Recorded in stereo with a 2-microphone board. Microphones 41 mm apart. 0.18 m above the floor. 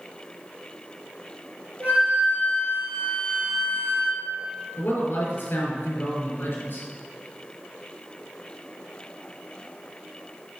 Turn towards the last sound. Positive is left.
turn(degrees=60)  # may be behind; listen again after turning